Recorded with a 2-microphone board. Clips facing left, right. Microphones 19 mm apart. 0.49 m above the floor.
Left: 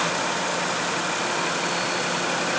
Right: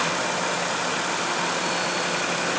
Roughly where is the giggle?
I don't hear a giggle.